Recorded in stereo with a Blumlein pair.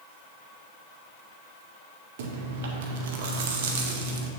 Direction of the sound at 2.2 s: 55° right.